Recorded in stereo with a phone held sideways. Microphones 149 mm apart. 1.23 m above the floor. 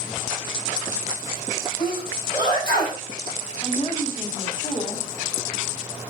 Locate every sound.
1.8 s a sneeze: 30° left (ahead or behind), 6 m
3.6 s a woman speaking: 45° left (ahead or behind), 2.5 m